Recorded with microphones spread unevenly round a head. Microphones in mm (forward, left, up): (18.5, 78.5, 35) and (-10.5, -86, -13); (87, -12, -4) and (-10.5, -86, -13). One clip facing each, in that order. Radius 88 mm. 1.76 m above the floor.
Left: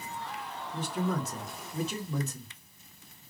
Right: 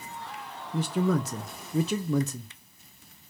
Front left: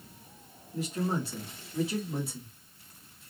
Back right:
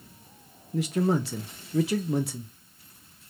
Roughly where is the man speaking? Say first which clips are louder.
Right 6 dB, back right 6 dB; behind right.